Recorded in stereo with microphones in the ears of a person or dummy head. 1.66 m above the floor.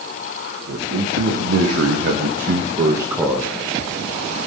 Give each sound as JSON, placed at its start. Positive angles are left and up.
{"t": 0.7, "sound": "a man speaking", "side_deg": -85, "distance_m": 3.5}